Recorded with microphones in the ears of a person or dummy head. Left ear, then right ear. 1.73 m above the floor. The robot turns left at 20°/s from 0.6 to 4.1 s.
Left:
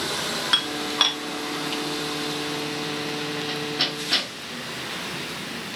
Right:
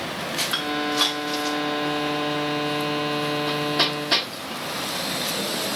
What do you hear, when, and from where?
0.5 s dishes clattering: 30° left (ahead or behind), 1.1 m; by 1.2 s 25° left (ahead or behind), 1.1 m
3.5 s hammering: 25° right (ahead or behind), 1.2 m; by 4.3 s 20° right (ahead or behind), 1.2 m